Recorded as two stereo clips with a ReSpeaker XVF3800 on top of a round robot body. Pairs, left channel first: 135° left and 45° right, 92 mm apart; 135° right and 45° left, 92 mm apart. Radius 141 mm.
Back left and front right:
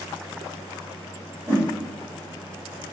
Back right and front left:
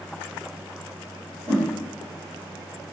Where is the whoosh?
15° left, 3 m.